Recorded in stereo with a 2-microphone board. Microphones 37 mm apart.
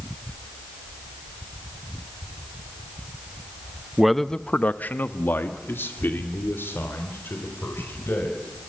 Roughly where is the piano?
No piano in this recording.